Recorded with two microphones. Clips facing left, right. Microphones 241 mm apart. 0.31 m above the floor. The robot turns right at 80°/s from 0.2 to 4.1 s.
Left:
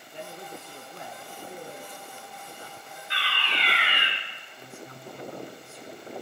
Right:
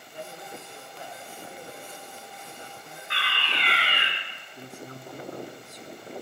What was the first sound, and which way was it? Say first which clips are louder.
A man speaking: even; 25° left.